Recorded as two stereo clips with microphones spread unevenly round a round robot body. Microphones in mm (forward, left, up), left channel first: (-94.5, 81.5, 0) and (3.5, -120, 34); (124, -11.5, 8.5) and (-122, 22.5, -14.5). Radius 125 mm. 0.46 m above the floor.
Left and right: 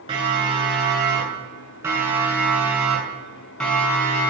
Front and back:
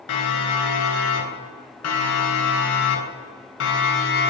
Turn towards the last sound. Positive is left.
turn(degrees=40)